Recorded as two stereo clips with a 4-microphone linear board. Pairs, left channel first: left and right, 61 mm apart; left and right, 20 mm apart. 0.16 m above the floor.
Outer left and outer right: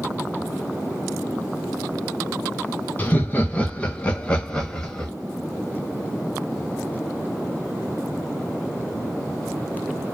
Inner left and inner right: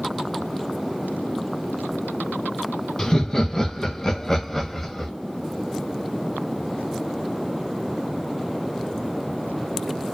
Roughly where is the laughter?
Left.